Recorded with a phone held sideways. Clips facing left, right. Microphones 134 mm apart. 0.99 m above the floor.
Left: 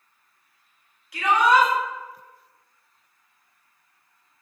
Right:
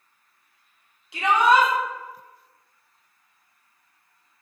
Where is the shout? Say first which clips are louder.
Even; 25° right (ahead or behind), 1.2 m.